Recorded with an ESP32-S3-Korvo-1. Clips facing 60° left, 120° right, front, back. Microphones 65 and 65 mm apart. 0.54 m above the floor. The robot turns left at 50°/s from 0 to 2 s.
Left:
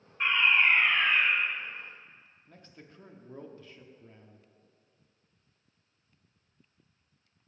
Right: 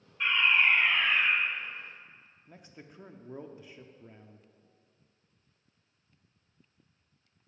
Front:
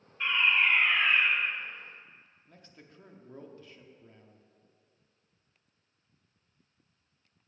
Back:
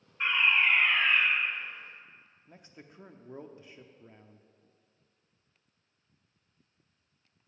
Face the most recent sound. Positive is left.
turn(degrees=-155)